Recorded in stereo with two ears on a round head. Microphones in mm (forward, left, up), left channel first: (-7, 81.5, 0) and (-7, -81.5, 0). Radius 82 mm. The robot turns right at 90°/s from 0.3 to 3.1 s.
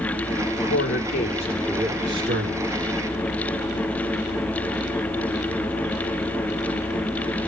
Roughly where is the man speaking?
Left.